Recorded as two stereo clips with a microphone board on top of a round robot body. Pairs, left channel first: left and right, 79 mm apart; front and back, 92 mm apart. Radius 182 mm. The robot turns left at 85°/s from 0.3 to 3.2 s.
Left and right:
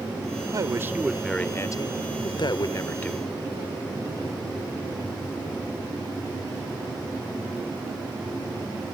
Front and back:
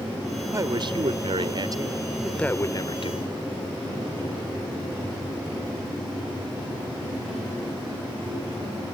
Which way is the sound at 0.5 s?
120° right.